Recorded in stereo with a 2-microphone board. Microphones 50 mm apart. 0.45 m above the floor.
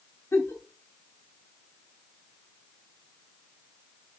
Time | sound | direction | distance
0.3 | a giggle | 65° left (ahead or behind) | 0.6 m